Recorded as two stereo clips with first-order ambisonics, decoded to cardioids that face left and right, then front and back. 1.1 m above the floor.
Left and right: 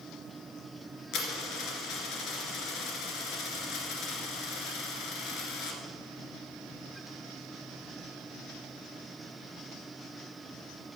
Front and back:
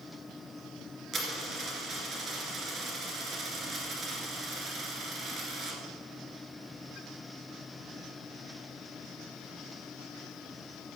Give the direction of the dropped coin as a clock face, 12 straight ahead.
8 o'clock.